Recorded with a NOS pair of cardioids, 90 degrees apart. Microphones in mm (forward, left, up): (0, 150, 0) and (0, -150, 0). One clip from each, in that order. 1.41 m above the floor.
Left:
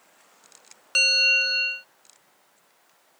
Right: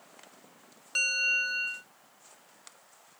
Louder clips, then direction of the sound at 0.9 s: Left 8 dB; 45° left.